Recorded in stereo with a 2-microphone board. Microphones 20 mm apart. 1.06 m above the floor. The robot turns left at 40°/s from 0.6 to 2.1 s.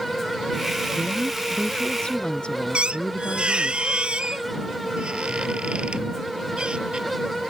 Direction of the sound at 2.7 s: 70° right (ahead or behind).